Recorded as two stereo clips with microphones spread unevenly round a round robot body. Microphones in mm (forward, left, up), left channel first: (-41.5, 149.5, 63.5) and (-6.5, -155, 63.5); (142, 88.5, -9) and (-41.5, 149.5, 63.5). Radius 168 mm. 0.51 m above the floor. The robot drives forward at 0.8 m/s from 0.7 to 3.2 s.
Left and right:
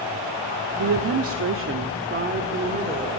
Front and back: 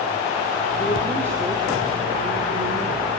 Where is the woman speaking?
80° right, 1.4 m; by 3.2 s 150° right, 2 m.